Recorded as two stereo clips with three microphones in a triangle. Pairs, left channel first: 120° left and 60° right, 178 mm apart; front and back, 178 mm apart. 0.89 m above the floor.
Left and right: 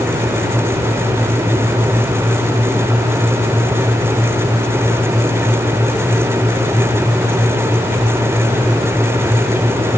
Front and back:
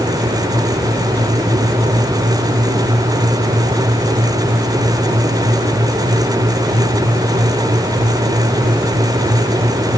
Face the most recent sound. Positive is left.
No sound to turn to.